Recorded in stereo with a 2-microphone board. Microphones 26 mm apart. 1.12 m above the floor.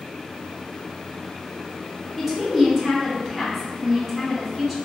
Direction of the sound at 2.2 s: 10° right (ahead or behind).